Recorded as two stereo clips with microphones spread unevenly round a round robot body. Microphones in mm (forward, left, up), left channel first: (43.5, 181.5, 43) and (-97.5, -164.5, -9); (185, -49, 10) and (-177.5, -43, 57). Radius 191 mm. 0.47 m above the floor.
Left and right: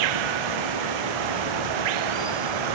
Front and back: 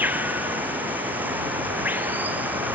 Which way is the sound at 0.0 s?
95° right.